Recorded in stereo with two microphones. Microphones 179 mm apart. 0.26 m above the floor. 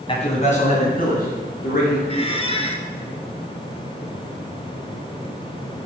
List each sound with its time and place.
0.1 s a man speaking: 30° left (ahead or behind), 1.5 m; by 2.0 s 60° left (ahead or behind), 4 m
2.1 s a squeak: 35° left (ahead or behind), 0.8 m